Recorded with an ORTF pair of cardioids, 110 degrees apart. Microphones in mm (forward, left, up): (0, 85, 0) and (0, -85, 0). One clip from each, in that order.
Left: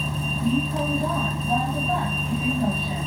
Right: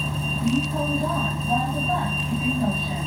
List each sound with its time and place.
0.0 s a vehicle: 5° right